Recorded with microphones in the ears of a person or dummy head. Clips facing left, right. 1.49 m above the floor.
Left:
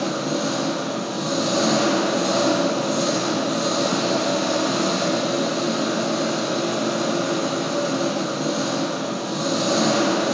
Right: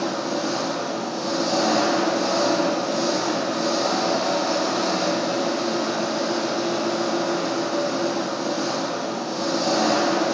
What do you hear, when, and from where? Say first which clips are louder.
0.0 s an engine running: left 1 dB; 35° left (ahead or behind), 7.5 m